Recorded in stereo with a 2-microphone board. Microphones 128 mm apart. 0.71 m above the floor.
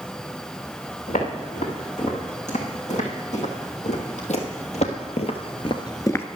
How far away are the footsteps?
About 4 m.